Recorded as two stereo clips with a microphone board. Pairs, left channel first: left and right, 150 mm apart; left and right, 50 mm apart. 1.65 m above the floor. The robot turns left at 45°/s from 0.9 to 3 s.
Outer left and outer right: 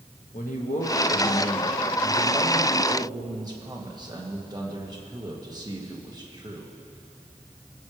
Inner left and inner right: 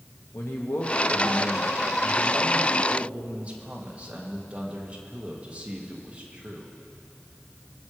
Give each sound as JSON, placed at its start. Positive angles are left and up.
{"t": 0.3, "sound": "a man speaking", "azimuth_deg": 65, "distance_m": 1.6}